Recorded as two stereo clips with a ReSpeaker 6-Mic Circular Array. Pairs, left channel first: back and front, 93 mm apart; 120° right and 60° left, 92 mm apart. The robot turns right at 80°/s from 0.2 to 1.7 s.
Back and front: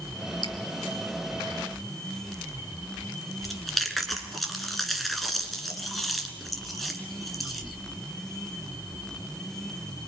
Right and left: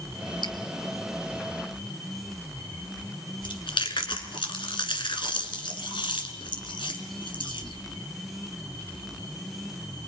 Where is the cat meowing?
No cat meowing in this recording.